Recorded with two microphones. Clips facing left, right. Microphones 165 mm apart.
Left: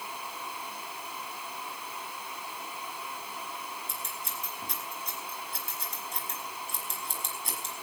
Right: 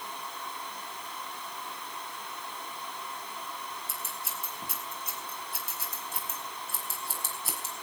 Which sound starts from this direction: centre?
Scissors, at 3.9 s.